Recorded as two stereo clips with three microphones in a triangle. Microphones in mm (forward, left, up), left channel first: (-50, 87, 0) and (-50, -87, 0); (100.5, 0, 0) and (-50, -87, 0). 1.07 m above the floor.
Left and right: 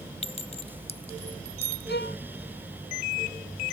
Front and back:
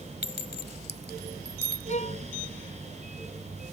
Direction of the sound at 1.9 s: 75° left.